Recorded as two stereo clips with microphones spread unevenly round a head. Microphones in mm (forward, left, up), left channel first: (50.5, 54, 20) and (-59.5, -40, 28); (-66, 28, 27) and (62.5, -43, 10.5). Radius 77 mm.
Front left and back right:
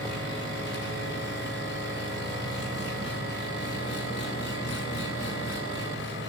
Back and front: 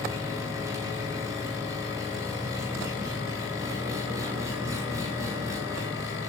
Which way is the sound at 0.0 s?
45° left.